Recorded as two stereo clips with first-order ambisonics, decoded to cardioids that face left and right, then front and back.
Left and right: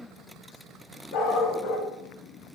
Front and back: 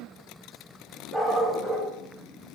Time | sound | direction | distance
1.1 | a dog barking | 105° left | 1.7 m